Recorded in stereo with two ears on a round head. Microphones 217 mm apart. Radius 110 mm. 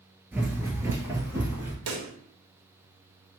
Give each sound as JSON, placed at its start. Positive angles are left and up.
{"t": 0.3, "sound": "running footsteps", "side_deg": -10, "distance_m": 0.8}
{"t": 1.9, "sound": "a pop", "side_deg": -75, "distance_m": 0.7}